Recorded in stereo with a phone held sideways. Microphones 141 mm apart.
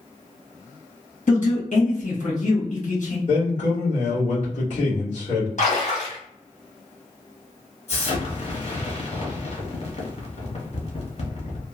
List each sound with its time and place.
1.3 s a man speaking: 65° left (ahead or behind), 1.6 m
3.3 s a man speaking: 50° left (ahead or behind), 1.9 m
5.6 s a splash: 60° left (ahead or behind), 1.1 m
7.9 s an explosion: 50° left (ahead or behind), 1.1 m